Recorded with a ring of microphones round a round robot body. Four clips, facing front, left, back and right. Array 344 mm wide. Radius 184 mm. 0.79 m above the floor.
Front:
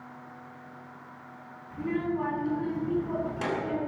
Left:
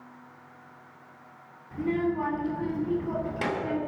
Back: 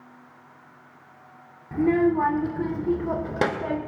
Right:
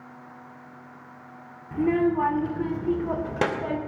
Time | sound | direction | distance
1.7 | a child speaking | 150° right | 1.9 m